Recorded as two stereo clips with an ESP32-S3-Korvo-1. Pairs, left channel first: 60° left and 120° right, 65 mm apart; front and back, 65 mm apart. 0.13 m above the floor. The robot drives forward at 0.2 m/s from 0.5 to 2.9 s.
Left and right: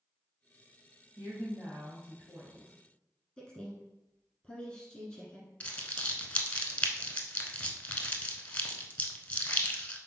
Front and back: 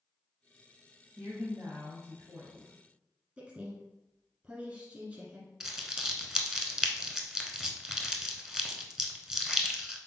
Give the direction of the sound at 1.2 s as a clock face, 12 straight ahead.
6 o'clock.